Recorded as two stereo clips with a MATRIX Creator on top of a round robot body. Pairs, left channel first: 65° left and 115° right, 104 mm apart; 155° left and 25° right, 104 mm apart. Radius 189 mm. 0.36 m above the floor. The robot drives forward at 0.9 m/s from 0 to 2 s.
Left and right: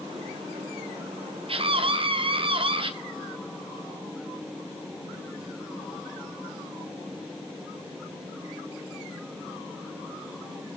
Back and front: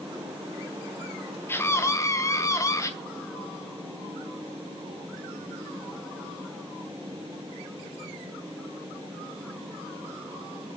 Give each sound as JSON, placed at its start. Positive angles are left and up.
{"t": 1.5, "sound": "a scream", "azimuth_deg": -135, "distance_m": 2.5}